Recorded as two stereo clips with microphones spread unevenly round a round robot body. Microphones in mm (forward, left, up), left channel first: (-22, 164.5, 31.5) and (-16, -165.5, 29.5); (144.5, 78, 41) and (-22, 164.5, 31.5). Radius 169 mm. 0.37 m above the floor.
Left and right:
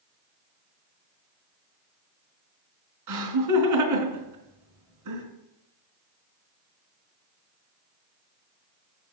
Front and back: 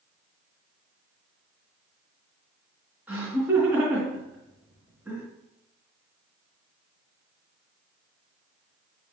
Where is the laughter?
125° right, 4 m.